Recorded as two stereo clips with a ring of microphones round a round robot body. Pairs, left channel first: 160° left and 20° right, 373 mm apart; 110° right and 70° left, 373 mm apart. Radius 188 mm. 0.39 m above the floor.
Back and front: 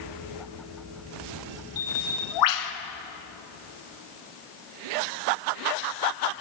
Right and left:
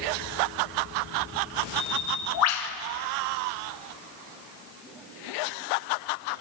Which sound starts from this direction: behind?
A bird, at 1.8 s.